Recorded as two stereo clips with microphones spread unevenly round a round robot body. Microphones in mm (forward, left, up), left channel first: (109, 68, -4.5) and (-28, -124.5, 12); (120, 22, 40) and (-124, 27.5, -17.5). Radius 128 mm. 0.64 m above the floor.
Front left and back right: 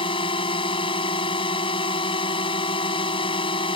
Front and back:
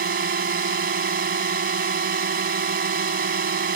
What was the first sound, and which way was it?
A drone, 125° left.